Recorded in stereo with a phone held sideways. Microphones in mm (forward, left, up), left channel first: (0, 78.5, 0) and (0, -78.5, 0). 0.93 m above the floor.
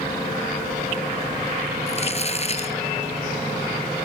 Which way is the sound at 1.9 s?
40° left (ahead or behind).